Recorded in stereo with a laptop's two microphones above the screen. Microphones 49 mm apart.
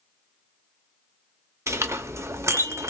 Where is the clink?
75° right (ahead or behind), 0.6 m.